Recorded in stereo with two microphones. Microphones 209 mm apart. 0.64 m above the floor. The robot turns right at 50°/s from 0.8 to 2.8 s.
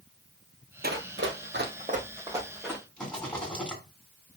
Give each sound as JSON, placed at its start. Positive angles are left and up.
{"t": 0.8, "sound": "running footsteps", "side_deg": -50, "distance_m": 1.1}
{"t": 3.0, "sound": "a rattle", "side_deg": 5, "distance_m": 3.0}